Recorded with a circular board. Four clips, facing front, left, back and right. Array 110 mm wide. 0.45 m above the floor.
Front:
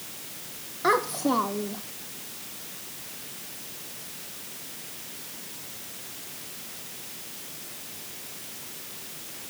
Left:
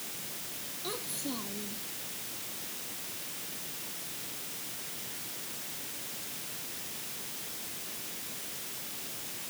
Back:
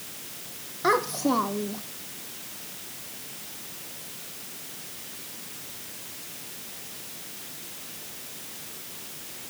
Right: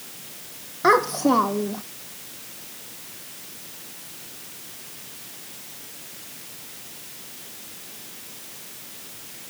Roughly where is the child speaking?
Right.